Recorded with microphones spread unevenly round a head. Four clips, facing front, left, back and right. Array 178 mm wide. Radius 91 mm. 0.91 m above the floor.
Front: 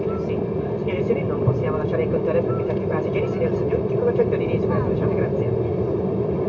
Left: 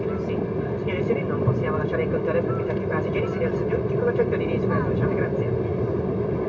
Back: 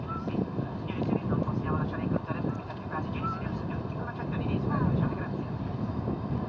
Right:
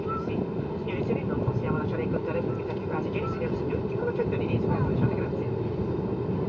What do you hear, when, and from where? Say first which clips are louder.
0.0 s an aircraft: left 4 dB, front 10 dB; 25° left